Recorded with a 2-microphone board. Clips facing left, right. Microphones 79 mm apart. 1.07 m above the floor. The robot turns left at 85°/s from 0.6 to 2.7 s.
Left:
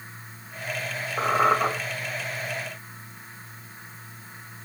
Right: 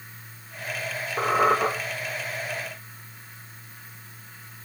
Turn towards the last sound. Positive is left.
turn(degrees=180)